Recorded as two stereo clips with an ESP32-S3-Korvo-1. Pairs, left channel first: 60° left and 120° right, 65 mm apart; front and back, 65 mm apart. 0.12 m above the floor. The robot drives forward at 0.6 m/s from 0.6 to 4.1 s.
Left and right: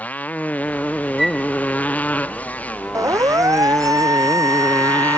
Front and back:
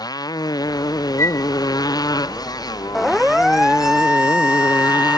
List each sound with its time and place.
0.0 s a motorcycle: 5° right
1.2 s a flute: 30° right; by 1.5 s 35° right
3.0 s a siren: 90° right; by 5.2 s 105° right